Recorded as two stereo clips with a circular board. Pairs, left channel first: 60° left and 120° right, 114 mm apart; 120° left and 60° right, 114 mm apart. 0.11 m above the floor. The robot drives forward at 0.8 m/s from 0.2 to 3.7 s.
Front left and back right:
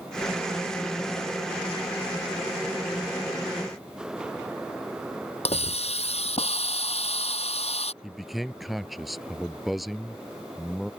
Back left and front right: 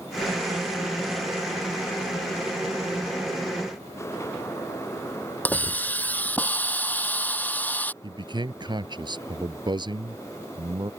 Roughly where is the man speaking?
Ahead right.